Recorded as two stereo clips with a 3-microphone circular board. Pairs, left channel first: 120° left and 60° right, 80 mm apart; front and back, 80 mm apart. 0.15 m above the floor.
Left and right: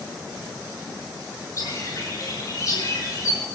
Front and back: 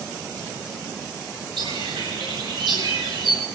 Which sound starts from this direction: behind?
A bird, at 1.6 s.